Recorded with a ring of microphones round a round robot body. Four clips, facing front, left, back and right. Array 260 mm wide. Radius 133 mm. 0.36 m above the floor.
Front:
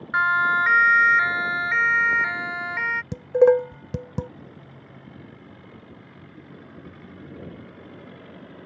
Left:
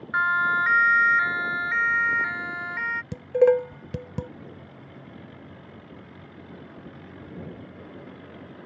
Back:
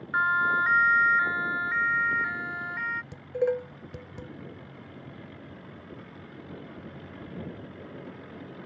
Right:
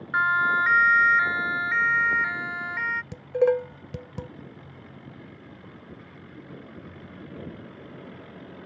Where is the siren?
Straight ahead.